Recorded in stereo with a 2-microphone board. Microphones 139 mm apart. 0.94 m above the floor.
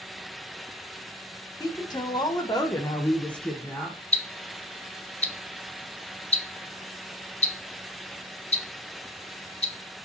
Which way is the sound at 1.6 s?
30° left (ahead or behind).